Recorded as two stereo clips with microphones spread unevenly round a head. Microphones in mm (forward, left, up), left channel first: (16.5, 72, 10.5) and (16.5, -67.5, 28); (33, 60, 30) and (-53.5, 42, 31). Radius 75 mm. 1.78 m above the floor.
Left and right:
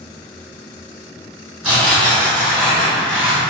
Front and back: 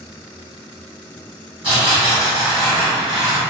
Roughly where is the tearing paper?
Behind right.